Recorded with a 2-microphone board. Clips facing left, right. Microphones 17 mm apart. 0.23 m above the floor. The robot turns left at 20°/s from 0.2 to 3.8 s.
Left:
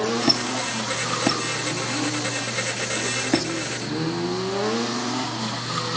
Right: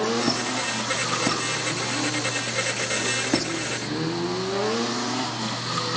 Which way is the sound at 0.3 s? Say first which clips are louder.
Left 3 dB; 40° left (ahead or behind).